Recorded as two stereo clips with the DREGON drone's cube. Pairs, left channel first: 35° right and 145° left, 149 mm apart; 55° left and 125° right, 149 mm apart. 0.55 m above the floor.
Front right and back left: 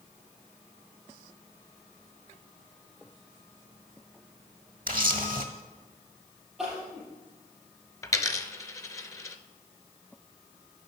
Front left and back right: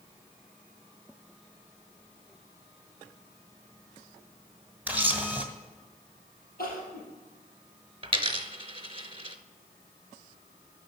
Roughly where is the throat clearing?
No throat clearing in this recording.